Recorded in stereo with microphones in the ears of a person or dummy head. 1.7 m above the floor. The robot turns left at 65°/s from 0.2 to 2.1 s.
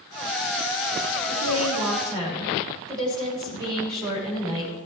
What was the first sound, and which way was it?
A woman speaking, 110° right.